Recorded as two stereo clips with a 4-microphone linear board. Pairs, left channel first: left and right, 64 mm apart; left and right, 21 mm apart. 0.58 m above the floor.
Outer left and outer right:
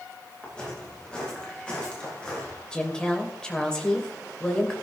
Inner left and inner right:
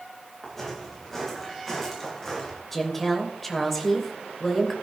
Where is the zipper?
I don't hear a zipper.